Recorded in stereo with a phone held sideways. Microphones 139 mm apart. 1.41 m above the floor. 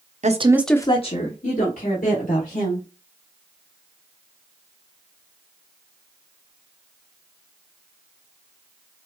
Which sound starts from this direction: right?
A woman speaking, at 0.2 s.